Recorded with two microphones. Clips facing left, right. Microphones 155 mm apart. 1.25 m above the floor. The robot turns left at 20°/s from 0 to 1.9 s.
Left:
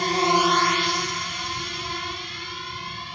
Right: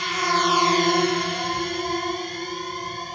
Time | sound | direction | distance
0.0 | a drone | 45° left (ahead or behind) | ?